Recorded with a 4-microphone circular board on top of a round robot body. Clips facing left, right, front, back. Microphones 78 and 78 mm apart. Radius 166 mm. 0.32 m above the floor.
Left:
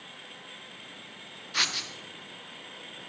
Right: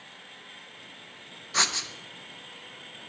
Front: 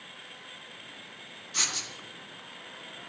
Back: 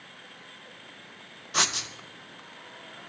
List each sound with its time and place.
1.5 s writing: 155° right, 1.0 m